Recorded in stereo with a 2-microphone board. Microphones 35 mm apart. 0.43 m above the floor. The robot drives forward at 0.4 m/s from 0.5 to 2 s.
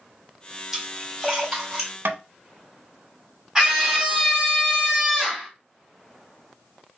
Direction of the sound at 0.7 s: 10° right (ahead or behind).